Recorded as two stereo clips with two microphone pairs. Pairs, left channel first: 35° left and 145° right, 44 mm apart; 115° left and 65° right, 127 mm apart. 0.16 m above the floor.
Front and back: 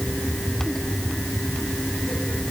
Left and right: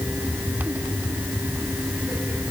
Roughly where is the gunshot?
I don't hear a gunshot.